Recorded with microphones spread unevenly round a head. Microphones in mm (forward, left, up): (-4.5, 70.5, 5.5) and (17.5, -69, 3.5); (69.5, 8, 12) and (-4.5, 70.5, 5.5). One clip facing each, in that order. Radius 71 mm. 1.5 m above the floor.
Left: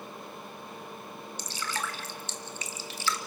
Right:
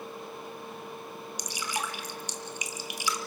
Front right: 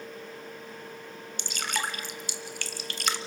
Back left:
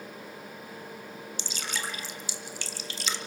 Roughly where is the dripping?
Ahead.